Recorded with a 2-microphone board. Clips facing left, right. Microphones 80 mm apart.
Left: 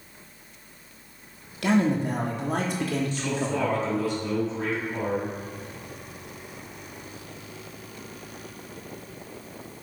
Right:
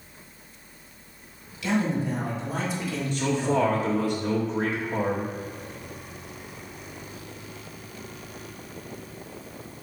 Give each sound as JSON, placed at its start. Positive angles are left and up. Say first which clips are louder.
{"t": 1.6, "sound": "a man speaking", "louder": "left 3 dB", "side_deg": 55, "distance_m": 1.5}
{"t": 3.1, "sound": "a man speaking", "louder": "right 4 dB", "side_deg": -50, "distance_m": 1.5}